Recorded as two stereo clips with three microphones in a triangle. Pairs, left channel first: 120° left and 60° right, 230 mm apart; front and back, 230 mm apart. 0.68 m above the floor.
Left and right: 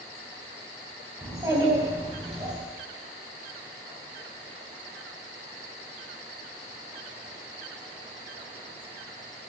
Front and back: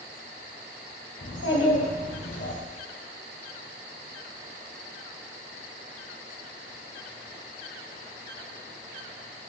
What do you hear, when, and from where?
1.2 s a child speaking: 20° left, 3.5 m; by 2.6 s straight ahead, 3.5 m